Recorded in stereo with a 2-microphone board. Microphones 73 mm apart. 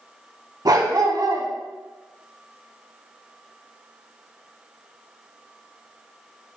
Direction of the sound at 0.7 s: 60° right (ahead or behind).